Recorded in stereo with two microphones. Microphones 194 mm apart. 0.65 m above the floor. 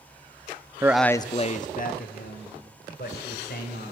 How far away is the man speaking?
About 0.5 m.